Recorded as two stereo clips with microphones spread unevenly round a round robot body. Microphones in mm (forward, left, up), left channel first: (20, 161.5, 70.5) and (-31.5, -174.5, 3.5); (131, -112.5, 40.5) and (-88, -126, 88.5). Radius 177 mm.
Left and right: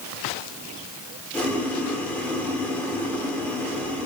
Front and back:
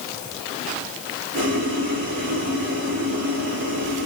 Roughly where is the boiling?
Behind.